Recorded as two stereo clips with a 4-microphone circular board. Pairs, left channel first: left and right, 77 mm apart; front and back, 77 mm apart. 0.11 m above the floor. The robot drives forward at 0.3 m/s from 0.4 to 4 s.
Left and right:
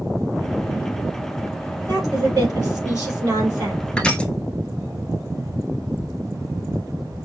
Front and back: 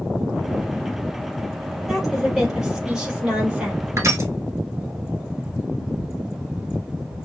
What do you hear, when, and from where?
1.9 s a woman speaking: 95° right, 3 m; by 3.8 s 105° right, 3 m
4.0 s crushing: 160° left, 0.8 m